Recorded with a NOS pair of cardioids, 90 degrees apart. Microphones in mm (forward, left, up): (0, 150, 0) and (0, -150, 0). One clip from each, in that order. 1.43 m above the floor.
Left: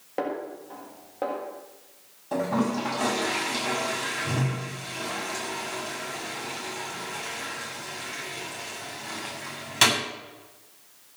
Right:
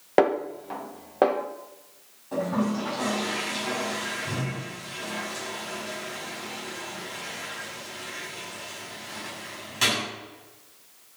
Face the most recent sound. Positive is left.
turn(degrees=55)